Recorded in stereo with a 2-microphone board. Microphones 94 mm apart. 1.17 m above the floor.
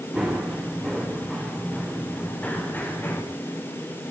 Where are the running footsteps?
5° right (ahead or behind), 7.5 m; by 3.2 s 25° left (ahead or behind), 5.5 m.